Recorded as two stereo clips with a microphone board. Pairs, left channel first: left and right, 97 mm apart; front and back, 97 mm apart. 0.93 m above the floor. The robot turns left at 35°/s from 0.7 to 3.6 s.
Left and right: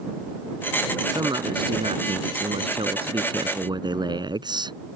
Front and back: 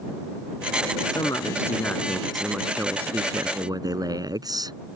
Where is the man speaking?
45° right; by 4.8 s 130° right.